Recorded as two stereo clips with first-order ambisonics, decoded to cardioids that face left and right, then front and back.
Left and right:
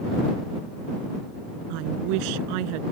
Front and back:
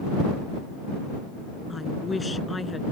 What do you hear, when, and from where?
1.7 s a woman speaking: 80° right